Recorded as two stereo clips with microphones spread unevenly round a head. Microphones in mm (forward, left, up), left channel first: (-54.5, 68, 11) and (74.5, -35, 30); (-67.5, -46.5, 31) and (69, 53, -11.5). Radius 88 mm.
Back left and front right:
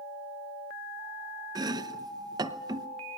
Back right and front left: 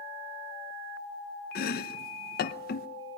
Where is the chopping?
105° right, 0.8 m.